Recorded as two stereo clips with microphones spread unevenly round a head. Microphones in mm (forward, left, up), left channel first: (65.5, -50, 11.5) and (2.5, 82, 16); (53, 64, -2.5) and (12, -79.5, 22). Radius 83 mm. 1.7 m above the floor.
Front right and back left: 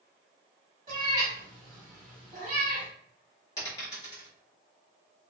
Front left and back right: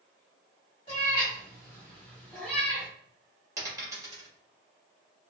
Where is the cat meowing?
115° left, 1.7 m; by 2.9 s straight behind, 1.8 m.